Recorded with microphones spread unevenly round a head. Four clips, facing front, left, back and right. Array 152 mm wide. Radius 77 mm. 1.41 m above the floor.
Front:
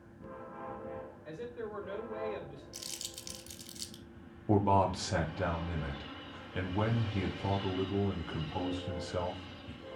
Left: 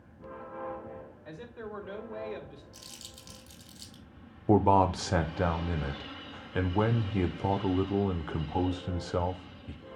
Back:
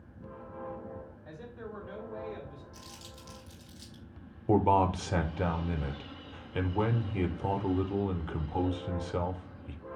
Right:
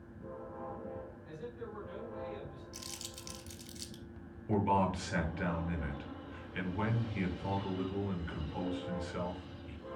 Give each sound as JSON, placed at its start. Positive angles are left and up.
{"t": 1.2, "sound": "a man speaking", "azimuth_deg": 60, "distance_m": 3.0}
{"t": 2.7, "sound": "crumpling", "azimuth_deg": -30, "distance_m": 1.9}
{"t": 4.5, "sound": "a man speaking", "azimuth_deg": 105, "distance_m": 0.9}